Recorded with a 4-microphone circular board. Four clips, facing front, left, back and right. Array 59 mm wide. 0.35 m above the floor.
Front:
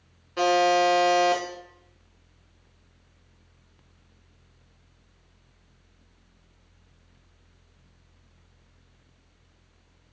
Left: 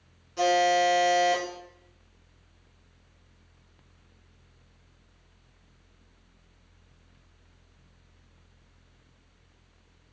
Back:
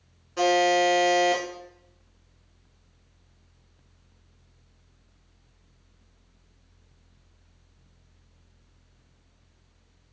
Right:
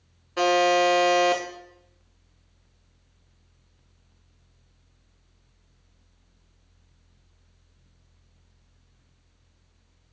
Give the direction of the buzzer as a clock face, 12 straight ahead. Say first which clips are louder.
Right 2 dB, front 1 dB; 3 o'clock.